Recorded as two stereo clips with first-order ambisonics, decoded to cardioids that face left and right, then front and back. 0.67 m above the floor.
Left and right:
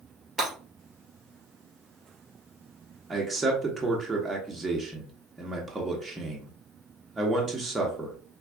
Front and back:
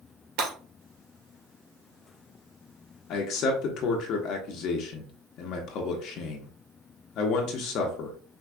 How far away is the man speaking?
About 0.7 m.